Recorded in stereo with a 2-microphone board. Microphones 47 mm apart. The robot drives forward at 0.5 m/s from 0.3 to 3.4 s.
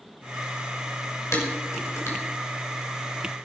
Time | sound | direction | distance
1.3 | dishes clattering | 80° left | 5.5 m